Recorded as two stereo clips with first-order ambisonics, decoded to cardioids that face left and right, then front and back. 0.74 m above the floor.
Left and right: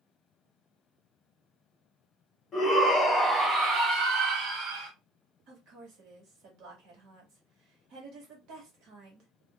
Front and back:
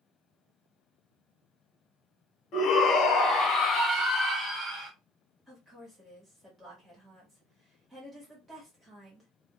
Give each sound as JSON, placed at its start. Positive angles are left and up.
{"t": 2.5, "sound": "a shout", "azimuth_deg": 30, "distance_m": 1.0}
{"t": 5.5, "sound": "a woman speaking", "azimuth_deg": -100, "distance_m": 1.5}